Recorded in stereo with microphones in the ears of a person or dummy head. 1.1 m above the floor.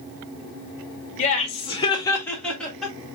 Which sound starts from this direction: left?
Laughter, at 1.2 s.